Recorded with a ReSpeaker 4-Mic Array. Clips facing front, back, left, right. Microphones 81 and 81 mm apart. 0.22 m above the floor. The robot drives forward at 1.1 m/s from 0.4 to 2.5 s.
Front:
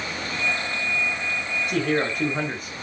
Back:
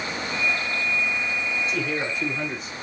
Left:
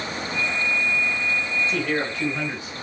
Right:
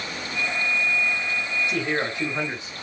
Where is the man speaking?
20° right, 4 m; by 2.7 s 25° right, 3 m.